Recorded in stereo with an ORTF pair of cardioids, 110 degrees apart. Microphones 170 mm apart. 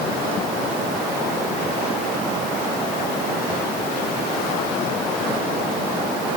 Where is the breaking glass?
I don't hear breaking glass.